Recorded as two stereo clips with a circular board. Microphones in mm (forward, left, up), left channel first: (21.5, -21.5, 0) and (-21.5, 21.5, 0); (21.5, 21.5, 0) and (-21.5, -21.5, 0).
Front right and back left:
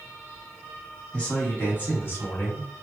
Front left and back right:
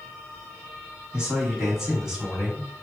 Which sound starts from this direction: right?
A man speaking, at 1.1 s.